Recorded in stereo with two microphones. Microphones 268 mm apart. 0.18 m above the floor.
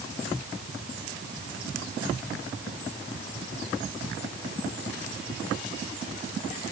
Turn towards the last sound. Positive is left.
No sound to turn to.